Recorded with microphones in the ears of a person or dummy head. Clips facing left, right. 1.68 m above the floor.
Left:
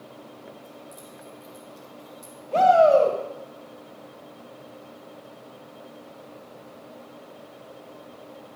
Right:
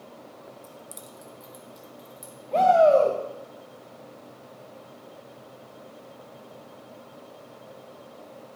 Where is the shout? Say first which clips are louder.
Left 1 dB; 5° left (ahead or behind), 2 m.